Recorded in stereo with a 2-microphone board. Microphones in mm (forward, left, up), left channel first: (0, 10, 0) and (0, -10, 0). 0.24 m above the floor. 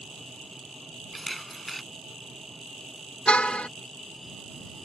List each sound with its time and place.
1.1 s a camera shutter: 5° left (ahead or behind)
3.3 s a car horn: 80° left